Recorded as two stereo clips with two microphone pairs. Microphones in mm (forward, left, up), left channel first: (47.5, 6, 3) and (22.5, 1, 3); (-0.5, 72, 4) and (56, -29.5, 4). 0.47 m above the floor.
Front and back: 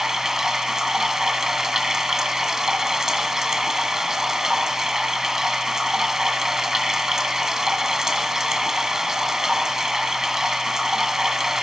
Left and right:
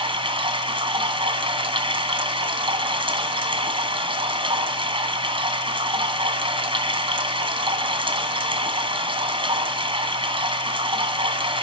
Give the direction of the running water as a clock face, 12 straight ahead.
3 o'clock.